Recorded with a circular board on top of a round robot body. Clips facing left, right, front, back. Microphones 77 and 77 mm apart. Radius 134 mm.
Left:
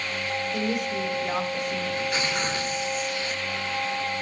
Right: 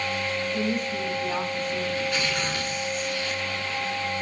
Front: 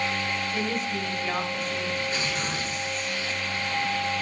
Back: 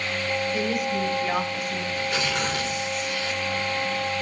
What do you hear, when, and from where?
0.5 s a woman speaking: 100° left, 4 m
1.9 s tearing paper: 155° left, 6 m